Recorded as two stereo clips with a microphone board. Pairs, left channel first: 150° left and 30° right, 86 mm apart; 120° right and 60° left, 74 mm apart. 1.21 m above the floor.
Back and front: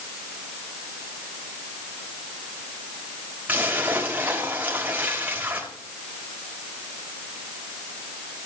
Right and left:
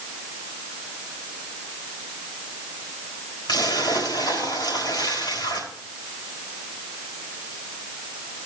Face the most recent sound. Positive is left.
turn(degrees=-100)